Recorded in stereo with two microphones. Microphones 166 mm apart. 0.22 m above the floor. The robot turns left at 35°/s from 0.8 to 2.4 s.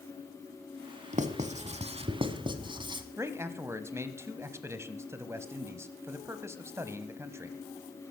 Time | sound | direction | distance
1.1 | writing | 50° right (ahead or behind) | 1.2 m
3.2 | a man speaking | 15° right (ahead or behind) | 1.0 m